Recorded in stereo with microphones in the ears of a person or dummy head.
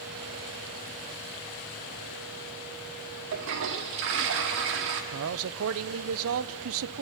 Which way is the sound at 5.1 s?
85° right.